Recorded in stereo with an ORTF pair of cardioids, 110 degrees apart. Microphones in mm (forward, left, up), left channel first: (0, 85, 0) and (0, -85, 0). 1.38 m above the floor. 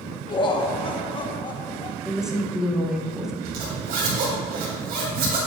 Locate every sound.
0.3 s laughter: 30° left, 1.1 m
2.0 s a woman speaking: 5° right, 1.1 m
3.5 s a zipper: 60° right, 2.5 m